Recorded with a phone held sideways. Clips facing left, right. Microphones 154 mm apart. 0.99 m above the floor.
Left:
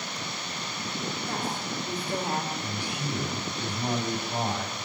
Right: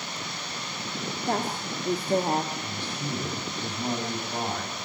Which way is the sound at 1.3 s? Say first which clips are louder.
Right 8 dB; 70° right (ahead or behind).